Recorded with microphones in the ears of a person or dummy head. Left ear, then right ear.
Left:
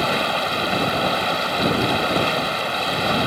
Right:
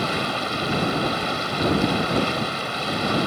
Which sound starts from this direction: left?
Running water, at 0.0 s.